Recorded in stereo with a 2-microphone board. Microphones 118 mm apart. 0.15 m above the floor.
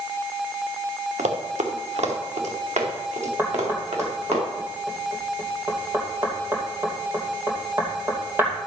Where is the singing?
I don't hear singing.